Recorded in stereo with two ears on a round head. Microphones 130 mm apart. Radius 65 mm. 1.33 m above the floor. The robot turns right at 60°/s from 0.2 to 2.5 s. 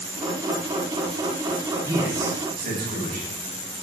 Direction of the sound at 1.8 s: 155° right.